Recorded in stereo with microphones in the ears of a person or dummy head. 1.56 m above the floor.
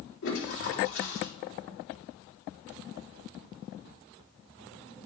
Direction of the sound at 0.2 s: 75° left (ahead or behind).